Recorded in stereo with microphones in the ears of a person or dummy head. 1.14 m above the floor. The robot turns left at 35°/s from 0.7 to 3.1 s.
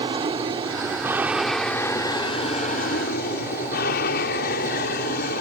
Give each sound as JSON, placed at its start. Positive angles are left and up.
{"t": 0.0, "sound": "an aircraft", "azimuth_deg": -150}